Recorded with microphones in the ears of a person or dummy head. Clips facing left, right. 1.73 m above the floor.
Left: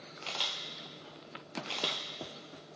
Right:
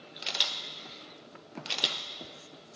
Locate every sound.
0.2 s a camera shutter: 10° right (ahead or behind), 0.5 m